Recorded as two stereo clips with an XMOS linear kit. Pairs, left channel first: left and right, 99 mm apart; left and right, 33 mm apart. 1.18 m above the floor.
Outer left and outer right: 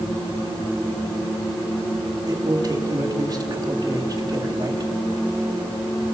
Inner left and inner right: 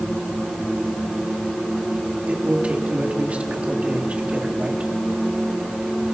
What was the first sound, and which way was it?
A man speaking, 40° right (ahead or behind).